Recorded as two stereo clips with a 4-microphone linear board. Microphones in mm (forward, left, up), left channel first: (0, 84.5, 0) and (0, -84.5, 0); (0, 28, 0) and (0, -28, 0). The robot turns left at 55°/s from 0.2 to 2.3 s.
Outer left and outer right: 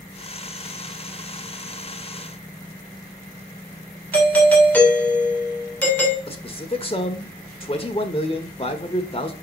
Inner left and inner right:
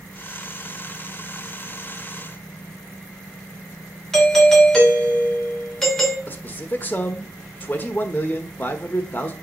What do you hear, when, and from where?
4.1 s a doorbell: 10° left (ahead or behind), 2.5 m
6.3 s a man speaking: 30° left (ahead or behind), 1.2 m